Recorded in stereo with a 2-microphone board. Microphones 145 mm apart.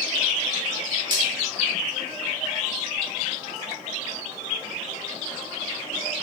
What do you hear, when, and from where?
1.1 s cutlery clinking: 35° right (ahead or behind), 1.6 m